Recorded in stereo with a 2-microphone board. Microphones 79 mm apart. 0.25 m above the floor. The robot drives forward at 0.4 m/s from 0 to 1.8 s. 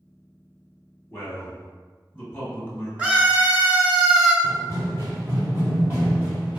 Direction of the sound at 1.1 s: 20° left (ahead or behind).